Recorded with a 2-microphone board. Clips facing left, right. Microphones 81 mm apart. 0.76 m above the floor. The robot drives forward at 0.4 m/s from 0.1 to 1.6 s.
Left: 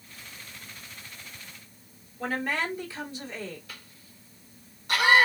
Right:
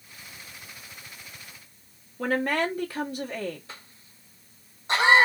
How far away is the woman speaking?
About 1.4 m.